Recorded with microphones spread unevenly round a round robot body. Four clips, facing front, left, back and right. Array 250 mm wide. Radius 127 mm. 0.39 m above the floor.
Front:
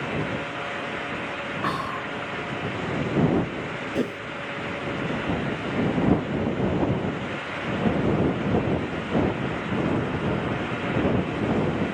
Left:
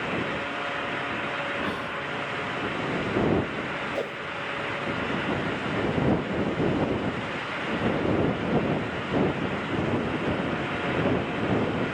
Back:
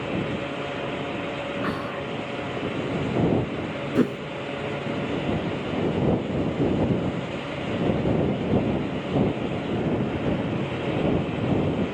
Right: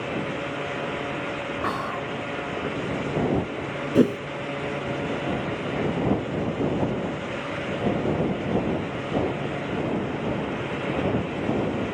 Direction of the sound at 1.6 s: 100° right.